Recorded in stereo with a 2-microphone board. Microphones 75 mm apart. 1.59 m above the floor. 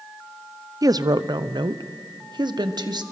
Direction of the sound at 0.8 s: 55° right (ahead or behind).